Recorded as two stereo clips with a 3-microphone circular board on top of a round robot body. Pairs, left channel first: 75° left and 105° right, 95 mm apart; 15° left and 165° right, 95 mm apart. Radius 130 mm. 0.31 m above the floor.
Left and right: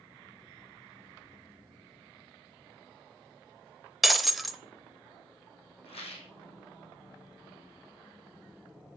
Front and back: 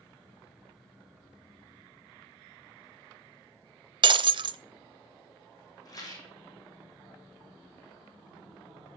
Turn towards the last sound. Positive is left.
turn(degrees=65)